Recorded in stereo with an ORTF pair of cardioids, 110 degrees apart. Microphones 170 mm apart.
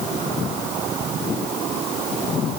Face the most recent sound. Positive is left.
No sound to turn to.